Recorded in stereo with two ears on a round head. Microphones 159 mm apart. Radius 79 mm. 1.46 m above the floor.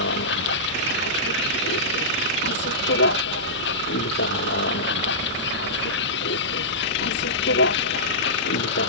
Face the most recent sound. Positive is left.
turn(degrees=65)  # may be behind; listen again after turning